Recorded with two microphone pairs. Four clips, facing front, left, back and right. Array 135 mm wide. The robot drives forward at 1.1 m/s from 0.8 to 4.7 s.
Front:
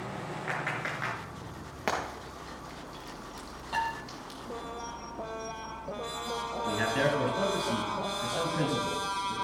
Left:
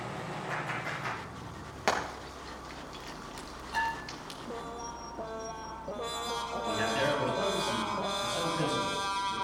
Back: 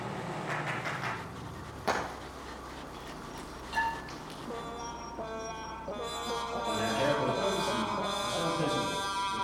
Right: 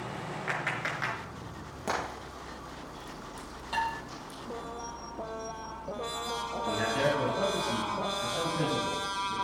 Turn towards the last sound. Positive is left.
turn(degrees=0)